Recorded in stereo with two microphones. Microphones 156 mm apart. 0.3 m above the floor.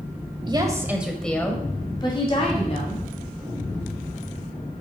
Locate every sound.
0.5 s a woman speaking: 30° right (ahead or behind), 1.3 m; by 3.0 s 45° left (ahead or behind), 2.5 m